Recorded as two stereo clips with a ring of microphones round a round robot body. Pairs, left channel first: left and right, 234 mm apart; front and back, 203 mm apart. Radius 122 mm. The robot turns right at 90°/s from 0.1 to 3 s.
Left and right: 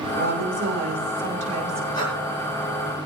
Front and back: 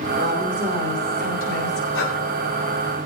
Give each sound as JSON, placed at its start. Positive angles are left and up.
{"t": 0.1, "sound": "a woman speaking", "azimuth_deg": -145, "distance_m": 8.5}
{"t": 1.9, "sound": "breathing", "azimuth_deg": 15, "distance_m": 6.5}